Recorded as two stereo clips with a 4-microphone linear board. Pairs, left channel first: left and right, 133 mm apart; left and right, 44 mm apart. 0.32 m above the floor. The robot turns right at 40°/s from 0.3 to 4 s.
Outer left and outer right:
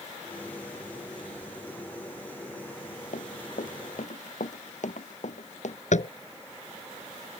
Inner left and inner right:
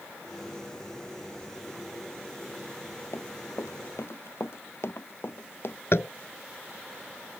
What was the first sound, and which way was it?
Running footsteps, 70° left (ahead or behind).